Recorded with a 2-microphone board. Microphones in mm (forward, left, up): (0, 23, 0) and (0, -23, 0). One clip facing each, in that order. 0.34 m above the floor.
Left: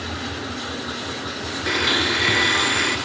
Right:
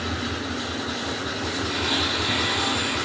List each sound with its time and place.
1.7 s a blender: 70° left (ahead or behind), 1.9 m